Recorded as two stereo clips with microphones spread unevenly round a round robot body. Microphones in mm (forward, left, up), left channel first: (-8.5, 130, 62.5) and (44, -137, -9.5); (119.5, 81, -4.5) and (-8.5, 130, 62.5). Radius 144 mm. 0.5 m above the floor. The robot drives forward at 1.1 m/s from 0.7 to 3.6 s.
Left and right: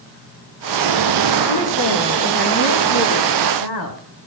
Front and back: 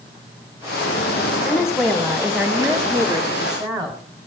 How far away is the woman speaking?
About 4.5 m.